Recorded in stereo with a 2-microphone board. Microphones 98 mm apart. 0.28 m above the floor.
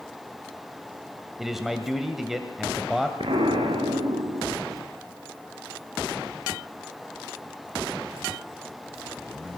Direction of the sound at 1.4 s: Centre (ahead or behind).